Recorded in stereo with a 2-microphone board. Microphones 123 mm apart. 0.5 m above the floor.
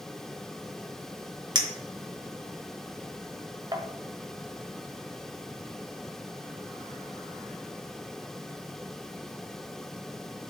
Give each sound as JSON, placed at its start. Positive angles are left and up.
{"t": 1.6, "sound": "a clink", "side_deg": -35, "distance_m": 1.0}